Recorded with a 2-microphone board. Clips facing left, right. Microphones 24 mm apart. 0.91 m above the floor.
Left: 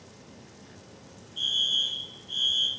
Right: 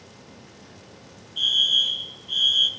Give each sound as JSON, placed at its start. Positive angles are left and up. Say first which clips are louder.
{"t": 1.4, "sound": "a fire alarm", "louder": "right 6 dB", "side_deg": -35, "distance_m": 1.4}